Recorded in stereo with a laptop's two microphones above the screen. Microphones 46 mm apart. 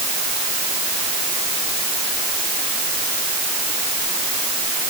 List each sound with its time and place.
Only background noise.